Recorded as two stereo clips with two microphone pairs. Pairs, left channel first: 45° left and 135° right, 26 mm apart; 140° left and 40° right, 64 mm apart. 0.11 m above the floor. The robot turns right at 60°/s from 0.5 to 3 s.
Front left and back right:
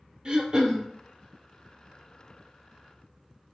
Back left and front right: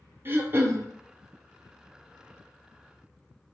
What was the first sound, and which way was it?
Throat clearing, 85° right.